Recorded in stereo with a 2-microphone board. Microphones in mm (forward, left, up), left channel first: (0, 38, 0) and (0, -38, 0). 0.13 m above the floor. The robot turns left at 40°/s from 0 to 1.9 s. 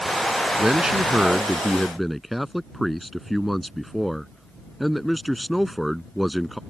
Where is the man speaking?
15° right (ahead or behind); by 6.6 s centre (ahead or behind).